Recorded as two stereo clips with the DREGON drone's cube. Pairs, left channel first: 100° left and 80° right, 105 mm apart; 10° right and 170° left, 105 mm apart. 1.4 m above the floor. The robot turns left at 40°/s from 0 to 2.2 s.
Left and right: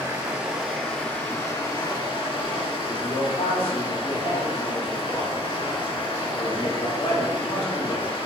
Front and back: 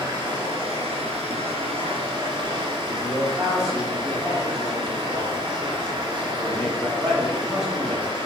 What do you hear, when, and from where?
0.0 s running water: 145° right, 2.5 m; by 8.3 s 130° left, 2.5 m
2.8 s a man speaking: 80° left, 2.5 m